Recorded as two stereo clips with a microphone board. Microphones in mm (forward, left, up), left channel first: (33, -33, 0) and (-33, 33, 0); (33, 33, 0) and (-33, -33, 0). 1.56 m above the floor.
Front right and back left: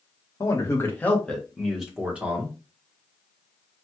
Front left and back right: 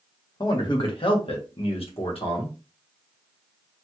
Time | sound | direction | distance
0.4 | a man speaking | 5° left | 1.0 m